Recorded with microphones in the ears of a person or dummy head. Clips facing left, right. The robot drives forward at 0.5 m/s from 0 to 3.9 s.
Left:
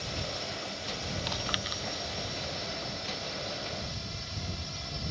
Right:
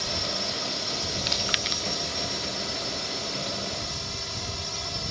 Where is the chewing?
25° right (ahead or behind); by 1.8 s 35° right (ahead or behind).